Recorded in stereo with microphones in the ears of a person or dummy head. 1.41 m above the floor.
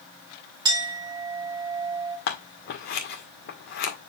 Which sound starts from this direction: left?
Scissors, at 2.3 s.